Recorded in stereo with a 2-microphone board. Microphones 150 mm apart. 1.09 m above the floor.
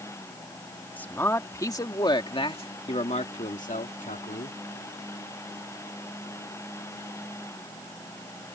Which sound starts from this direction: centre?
A man speaking, at 1.0 s.